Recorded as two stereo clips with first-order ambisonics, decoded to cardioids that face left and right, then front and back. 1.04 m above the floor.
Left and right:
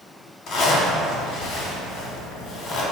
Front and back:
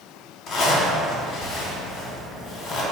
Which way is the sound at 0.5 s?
55° left.